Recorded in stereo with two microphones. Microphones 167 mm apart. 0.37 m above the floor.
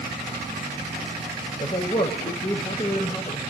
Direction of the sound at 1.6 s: 40° left (ahead or behind).